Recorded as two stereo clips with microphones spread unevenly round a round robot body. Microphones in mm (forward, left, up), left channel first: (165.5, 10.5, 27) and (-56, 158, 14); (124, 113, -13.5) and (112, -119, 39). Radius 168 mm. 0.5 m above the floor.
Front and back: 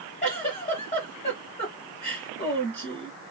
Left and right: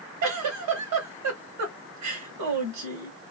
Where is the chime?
No chime in this recording.